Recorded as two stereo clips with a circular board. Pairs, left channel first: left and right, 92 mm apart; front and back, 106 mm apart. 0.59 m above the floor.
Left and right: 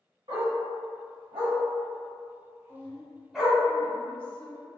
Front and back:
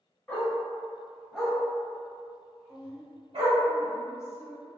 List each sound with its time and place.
0.3 s a dog barking: 75° right, 1.4 m; by 3.6 s straight behind, 1.0 m
2.7 s a woman speaking: 30° left, 0.7 m